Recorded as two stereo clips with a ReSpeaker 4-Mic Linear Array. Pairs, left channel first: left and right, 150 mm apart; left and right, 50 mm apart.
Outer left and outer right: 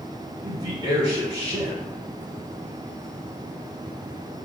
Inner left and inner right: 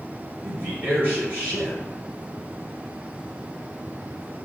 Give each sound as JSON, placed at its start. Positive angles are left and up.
{"t": 0.4, "sound": "a man speaking", "side_deg": -30, "distance_m": 1.9}